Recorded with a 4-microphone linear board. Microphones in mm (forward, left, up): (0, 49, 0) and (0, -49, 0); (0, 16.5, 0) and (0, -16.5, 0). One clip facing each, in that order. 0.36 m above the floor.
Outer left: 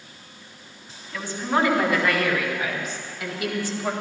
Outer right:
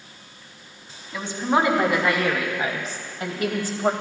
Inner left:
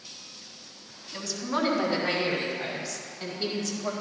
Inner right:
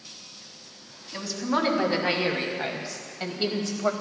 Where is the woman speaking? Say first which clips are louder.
Outer right 2 dB, inner right 3 dB; 20° right (ahead or behind), 2.5 m; by 3.9 s 50° right (ahead or behind), 1.8 m.